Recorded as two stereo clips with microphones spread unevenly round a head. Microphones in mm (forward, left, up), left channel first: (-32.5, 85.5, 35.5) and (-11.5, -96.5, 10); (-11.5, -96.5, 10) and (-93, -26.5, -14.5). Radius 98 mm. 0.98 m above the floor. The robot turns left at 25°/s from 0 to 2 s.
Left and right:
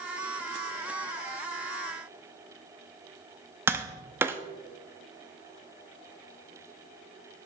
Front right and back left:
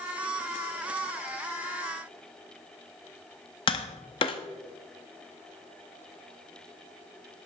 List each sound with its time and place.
3.7 s tapping: straight ahead, 0.5 m